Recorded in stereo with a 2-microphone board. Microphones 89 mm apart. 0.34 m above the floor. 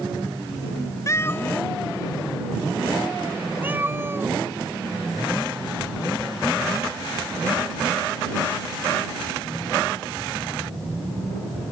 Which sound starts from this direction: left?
A cat meowing, at 1.1 s.